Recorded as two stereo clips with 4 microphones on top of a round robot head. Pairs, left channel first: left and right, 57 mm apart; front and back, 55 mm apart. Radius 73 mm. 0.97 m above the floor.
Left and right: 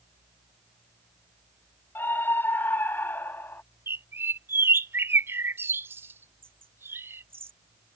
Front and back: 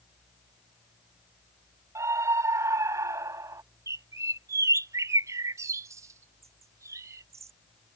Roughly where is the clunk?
No clunk in this recording.